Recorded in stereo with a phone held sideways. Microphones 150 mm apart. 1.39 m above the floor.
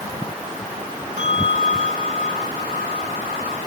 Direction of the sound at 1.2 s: 65° right (ahead or behind).